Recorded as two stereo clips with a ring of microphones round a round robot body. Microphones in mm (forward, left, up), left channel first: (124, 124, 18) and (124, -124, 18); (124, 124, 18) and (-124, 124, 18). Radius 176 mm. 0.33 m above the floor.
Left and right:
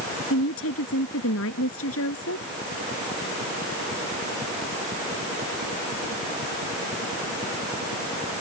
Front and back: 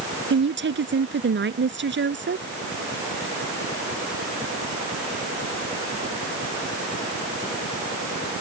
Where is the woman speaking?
140° left.